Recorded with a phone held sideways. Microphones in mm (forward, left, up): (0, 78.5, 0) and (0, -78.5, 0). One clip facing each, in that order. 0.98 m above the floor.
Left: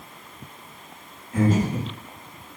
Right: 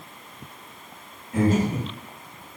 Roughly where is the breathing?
Right.